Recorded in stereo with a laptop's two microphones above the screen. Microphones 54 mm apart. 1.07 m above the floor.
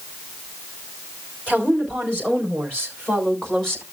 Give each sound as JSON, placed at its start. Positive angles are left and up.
{"t": 1.5, "sound": "a woman speaking", "side_deg": 30, "distance_m": 4.5}